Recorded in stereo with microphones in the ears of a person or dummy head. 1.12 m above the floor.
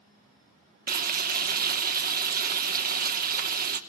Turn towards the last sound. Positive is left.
turn(degrees=-40)  # may be behind; listen again after turning